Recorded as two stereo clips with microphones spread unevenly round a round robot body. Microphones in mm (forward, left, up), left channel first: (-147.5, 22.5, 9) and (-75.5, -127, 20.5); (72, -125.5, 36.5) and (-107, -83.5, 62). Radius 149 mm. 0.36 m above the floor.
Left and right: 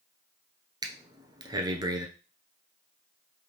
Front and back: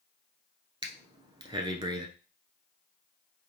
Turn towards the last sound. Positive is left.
turn(degrees=-130)